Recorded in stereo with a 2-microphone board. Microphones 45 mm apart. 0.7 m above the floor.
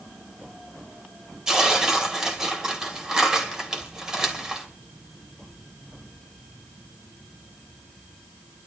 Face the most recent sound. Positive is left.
turn(degrees=-15)  # may be behind; listen again after turning